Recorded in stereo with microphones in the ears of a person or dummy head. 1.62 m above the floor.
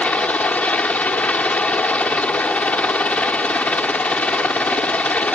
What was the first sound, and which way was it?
A helicopter, 10° left (ahead or behind).